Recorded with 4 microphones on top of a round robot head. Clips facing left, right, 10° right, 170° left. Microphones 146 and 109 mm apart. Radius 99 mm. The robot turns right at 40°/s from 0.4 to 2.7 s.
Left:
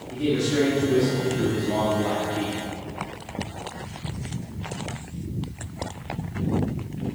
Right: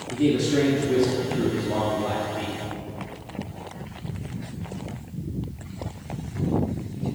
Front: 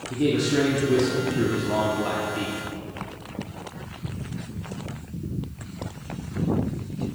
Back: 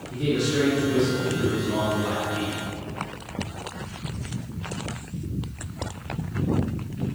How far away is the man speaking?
About 1.1 m.